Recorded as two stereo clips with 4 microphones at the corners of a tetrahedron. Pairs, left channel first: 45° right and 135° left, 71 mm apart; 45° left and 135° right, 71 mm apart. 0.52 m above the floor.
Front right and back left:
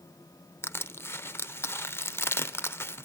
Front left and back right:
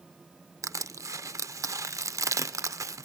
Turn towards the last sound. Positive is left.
turn(degrees=-95)